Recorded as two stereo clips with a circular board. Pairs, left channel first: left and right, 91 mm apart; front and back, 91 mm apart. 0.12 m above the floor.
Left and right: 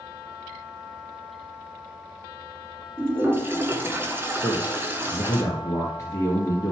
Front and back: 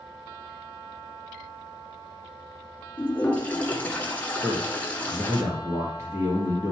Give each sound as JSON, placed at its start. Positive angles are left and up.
{"t": 3.0, "sound": "a toilet flushing", "azimuth_deg": -55, "distance_m": 1.5}
{"t": 4.4, "sound": "a man speaking", "azimuth_deg": 130, "distance_m": 2.0}